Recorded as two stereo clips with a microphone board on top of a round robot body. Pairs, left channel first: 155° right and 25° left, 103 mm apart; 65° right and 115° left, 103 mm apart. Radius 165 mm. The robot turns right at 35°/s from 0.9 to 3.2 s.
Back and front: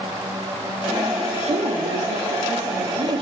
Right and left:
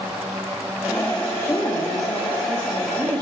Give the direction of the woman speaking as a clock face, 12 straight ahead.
12 o'clock.